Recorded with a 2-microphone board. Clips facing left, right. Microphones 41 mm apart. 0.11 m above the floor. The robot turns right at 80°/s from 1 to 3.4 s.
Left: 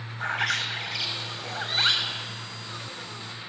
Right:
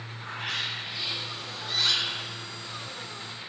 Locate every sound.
0.2 s a bird: 85° left, 1.1 m; by 2.2 s 175° right, 1.1 m